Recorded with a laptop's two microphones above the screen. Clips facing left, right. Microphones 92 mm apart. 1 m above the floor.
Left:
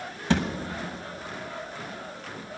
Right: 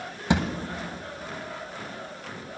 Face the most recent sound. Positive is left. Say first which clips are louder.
# even
turn(degrees=-15)  # may be behind; listen again after turning